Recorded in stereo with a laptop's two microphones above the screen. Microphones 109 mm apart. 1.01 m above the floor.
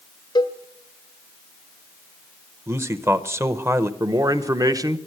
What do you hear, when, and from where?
0.3 s a cowbell: 45° left (ahead or behind), 1.1 m
2.7 s a man speaking: 25° right (ahead or behind), 0.7 m
4.0 s a man speaking: 35° right (ahead or behind), 0.8 m